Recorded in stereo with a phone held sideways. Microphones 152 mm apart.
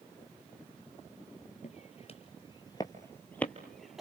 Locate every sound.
1.6 s footsteps: 50° left (ahead or behind), 1.9 m; by 4.0 s centre (ahead or behind), 2 m